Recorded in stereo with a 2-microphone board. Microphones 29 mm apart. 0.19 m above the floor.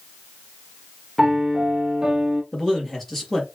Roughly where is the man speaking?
Centre.